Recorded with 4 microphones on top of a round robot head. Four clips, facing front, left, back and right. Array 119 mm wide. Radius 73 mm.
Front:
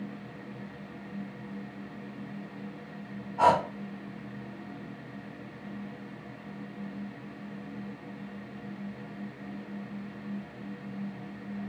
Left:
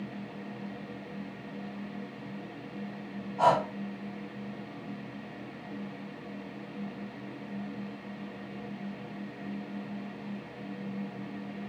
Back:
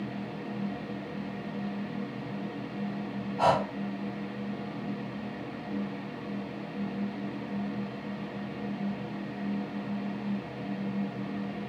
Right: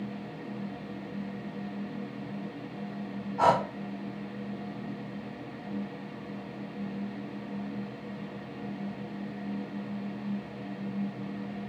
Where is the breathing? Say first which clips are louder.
Even, front 2 dB; 50° right, 1.5 m.